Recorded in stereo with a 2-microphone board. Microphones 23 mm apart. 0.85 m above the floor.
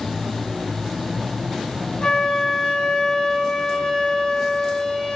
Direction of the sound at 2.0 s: 60° left (ahead or behind).